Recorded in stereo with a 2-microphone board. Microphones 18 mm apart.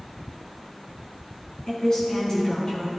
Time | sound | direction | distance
1.7 | a woman speaking | 35° left (ahead or behind) | 3.5 m